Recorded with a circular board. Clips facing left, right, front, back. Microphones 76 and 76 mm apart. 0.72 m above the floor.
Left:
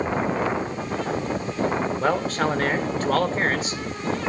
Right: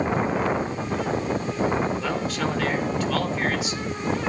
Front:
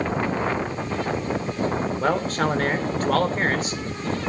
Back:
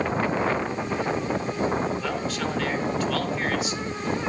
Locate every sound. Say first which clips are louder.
2.0 s a man speaking: left 4 dB, front 6 dB; 45° left, 2.5 m